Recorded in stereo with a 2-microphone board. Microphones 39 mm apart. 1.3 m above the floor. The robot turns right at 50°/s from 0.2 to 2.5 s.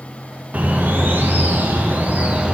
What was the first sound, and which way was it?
A bird, 130° right.